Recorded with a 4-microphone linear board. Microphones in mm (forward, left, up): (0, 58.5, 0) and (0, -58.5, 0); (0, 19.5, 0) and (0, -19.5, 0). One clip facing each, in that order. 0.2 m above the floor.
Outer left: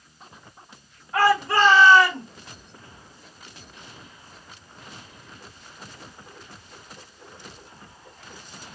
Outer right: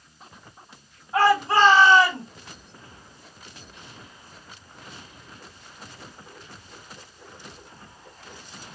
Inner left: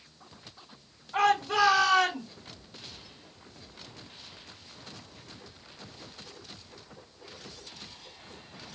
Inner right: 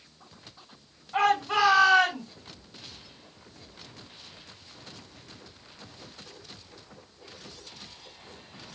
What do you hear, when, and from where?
1.1 s a shout: 20° right (ahead or behind), 2.0 m; by 2.2 s 30° right (ahead or behind), 1.8 m